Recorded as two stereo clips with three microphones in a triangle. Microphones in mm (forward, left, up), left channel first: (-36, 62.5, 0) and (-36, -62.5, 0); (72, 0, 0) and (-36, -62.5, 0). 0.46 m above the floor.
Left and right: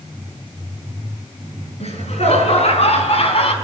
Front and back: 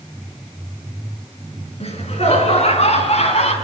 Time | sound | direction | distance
1.8 | laughter | 60° left | 6.5 m